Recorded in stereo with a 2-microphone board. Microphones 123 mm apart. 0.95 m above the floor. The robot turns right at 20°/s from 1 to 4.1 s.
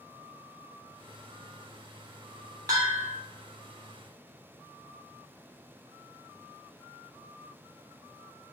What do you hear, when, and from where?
2.7 s a bell: 30° right (ahead or behind), 3 m; by 3.1 s 40° right (ahead or behind), 3 m